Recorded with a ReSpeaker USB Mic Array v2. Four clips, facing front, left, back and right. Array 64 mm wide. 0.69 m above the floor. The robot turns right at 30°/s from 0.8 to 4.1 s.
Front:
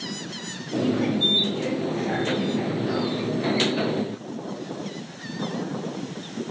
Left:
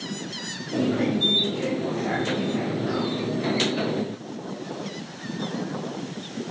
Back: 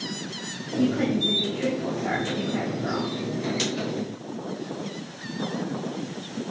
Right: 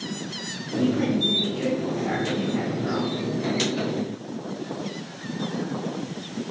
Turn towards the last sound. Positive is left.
turn(degrees=-150)